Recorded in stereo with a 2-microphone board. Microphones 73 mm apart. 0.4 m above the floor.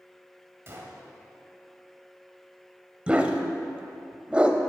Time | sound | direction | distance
0.7 | a gunshot | 35° right (ahead or behind) | 1.2 m
3.1 | a dog barking | 15° right (ahead or behind) | 0.6 m